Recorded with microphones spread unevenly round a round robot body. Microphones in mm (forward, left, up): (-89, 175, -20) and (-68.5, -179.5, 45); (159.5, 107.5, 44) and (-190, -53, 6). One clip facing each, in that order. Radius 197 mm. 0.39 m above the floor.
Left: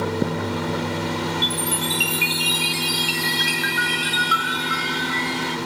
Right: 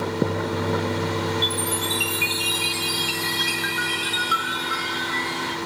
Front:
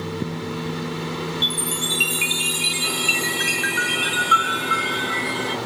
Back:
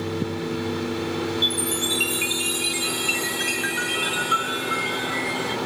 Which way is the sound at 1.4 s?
50° left.